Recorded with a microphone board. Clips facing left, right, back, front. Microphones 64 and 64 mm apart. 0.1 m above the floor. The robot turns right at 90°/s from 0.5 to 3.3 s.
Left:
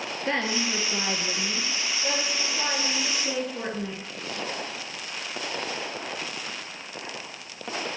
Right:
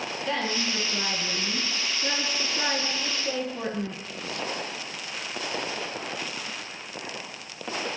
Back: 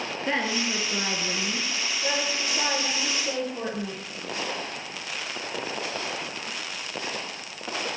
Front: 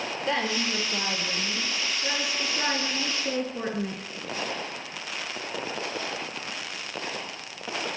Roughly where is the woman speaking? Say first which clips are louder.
Left 2 dB, back 1 dB; behind left.